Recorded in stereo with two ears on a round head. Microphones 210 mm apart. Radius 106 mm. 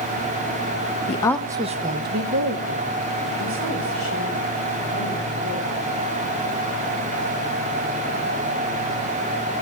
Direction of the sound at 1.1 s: 30° left (ahead or behind).